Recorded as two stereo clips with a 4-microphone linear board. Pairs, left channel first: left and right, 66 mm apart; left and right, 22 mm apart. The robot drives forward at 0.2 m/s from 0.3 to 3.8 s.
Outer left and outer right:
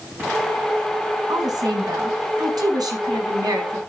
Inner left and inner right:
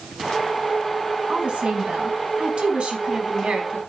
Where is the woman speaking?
80° right, 4.5 m; by 3.8 s 75° right (ahead or behind), 4.5 m.